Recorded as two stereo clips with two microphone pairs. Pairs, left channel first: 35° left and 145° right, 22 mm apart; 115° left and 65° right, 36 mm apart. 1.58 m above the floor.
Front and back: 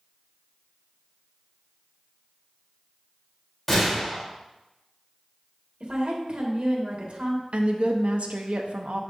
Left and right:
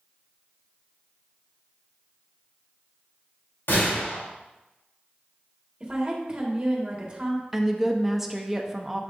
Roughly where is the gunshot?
Behind left.